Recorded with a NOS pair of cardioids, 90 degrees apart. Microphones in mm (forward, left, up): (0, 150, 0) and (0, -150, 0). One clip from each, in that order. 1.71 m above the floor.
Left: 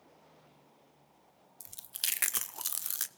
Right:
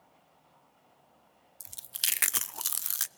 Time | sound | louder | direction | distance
1.6 | chewing | right 4 dB | 15° right | 0.7 m